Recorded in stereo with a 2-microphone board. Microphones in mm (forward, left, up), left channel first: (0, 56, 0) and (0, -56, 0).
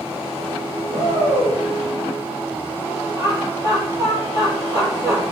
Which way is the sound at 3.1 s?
30° right (ahead or behind).